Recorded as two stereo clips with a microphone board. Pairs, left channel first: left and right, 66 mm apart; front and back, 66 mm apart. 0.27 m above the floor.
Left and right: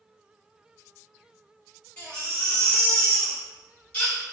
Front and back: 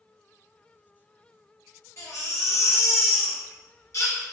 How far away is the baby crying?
About 1.7 m.